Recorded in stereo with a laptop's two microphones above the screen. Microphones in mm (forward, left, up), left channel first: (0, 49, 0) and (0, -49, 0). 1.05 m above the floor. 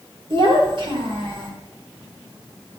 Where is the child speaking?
60° right (ahead or behind), 1.8 m; by 1.5 s 55° right (ahead or behind), 2.5 m.